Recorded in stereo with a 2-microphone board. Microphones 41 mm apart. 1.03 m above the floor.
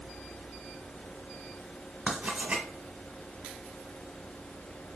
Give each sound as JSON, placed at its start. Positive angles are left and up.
{"t": 2.1, "sound": "writing", "side_deg": -40, "distance_m": 1.1}